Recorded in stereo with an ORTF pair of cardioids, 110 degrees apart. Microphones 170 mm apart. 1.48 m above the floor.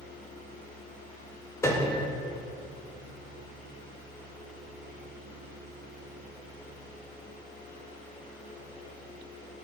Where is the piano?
15° left, 1.3 m.